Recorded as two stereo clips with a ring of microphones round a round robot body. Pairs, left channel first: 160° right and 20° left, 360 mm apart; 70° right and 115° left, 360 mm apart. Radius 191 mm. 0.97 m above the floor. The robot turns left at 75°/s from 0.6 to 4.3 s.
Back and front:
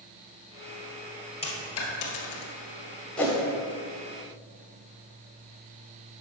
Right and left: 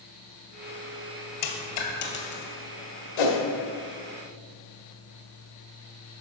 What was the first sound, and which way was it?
A dropped coin, 85° right.